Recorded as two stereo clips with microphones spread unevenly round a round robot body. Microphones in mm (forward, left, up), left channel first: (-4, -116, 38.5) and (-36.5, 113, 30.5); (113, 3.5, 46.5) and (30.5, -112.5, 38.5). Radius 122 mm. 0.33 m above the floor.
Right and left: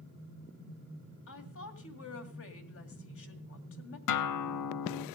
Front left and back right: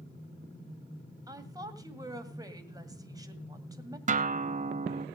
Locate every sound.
1.3 s a woman speaking: 65° right, 2 m
4.1 s a guitar: 90° right, 0.7 m